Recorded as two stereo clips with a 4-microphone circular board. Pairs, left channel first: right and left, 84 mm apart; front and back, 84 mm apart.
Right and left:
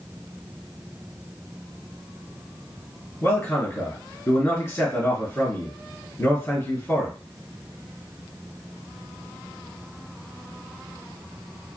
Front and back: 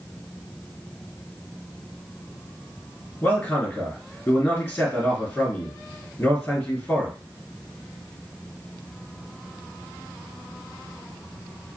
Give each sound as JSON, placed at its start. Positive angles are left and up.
{"t": 3.2, "sound": "a man speaking", "azimuth_deg": -55, "distance_m": 1.5}